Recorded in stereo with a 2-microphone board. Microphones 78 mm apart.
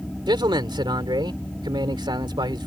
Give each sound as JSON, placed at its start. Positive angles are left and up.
{"t": 0.3, "sound": "a man speaking", "side_deg": -70}